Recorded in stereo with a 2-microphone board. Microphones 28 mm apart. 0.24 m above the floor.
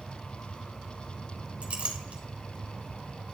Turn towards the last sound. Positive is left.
turn(degrees=-50)  # may be behind; listen again after turning